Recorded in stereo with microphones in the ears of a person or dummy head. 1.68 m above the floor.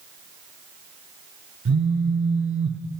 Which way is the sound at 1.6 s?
60° right (ahead or behind).